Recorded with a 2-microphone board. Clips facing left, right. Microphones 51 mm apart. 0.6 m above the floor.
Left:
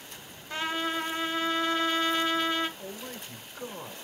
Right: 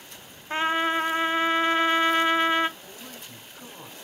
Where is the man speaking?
50° left (ahead or behind), 1.8 m.